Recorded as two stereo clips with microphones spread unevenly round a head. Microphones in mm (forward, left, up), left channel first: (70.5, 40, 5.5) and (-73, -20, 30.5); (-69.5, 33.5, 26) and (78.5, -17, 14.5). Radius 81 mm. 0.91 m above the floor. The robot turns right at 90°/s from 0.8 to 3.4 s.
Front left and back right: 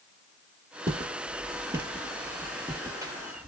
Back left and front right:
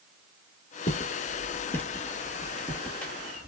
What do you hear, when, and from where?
0.9 s footsteps: 160° left, 1.2 m; by 3.5 s 110° right, 1.1 m